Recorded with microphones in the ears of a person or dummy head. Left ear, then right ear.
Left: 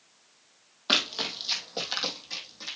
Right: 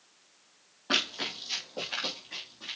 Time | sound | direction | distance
0.9 | running footsteps | 60° left (ahead or behind) | 2 m